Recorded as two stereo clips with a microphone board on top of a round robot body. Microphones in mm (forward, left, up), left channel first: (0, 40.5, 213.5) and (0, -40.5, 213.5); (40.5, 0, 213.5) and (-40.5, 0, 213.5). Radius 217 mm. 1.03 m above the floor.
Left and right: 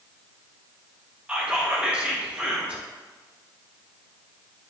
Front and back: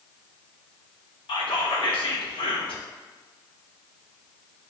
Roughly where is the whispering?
Ahead.